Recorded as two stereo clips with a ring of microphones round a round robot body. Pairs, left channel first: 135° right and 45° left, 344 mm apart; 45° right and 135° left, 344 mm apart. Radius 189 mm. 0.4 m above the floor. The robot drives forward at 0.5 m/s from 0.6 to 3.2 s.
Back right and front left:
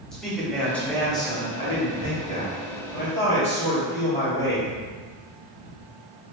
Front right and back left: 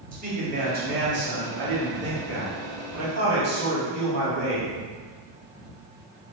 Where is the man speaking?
140° left, 1.1 m; by 4.7 s 170° left, 1.9 m.